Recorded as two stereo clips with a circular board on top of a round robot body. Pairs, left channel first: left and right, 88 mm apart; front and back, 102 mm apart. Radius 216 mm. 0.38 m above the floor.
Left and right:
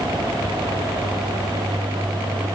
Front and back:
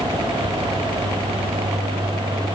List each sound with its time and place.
Only background noise.